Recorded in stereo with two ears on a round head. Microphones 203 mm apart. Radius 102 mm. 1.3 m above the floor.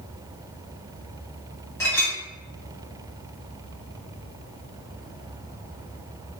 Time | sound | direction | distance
1.8 | a clink | 10° left (ahead or behind) | 2 m